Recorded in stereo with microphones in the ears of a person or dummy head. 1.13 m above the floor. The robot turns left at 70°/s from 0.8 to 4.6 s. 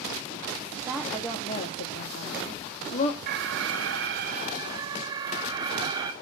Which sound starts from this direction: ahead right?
An alarm, at 3.3 s.